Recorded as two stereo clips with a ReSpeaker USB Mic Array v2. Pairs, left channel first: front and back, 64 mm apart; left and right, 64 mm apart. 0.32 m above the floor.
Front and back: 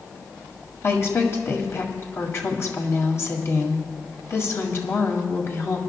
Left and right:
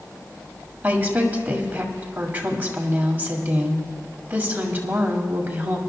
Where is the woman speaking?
35° right, 1.7 m.